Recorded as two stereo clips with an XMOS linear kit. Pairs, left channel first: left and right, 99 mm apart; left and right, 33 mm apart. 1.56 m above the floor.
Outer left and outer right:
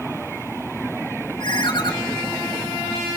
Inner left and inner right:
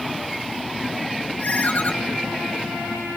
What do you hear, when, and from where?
1.4 s a ringtone: 50° left (ahead or behind), 1.3 m